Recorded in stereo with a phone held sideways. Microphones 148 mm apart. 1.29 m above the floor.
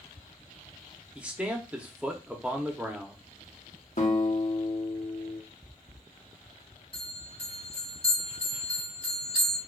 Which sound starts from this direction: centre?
A man speaking, at 1.1 s.